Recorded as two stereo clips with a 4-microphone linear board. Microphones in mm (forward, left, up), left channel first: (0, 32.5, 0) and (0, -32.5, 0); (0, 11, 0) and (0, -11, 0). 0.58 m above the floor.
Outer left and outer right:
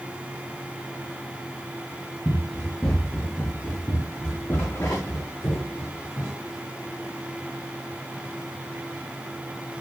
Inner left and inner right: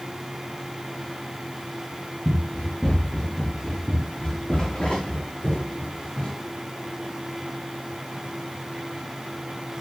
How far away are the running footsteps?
About 4.5 m.